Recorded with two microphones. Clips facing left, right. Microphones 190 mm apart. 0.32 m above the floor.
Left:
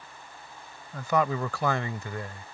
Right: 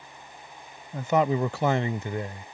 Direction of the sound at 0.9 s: 20° right (ahead or behind).